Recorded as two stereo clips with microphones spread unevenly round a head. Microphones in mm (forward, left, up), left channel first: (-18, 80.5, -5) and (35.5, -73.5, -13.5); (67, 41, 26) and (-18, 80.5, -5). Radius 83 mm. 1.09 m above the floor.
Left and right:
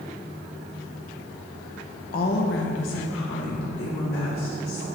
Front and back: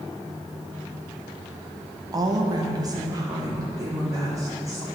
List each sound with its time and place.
2.1 s a woman speaking: 145° left, 0.7 m; by 4.8 s 100° left, 3 m